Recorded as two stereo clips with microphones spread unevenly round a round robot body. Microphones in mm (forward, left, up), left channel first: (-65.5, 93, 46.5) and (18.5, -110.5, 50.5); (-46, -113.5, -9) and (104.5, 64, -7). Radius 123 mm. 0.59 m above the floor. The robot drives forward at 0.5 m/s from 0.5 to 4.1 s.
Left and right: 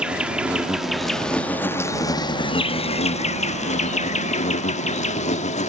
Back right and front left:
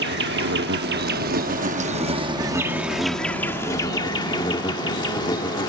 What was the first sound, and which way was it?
An insect, 20° left.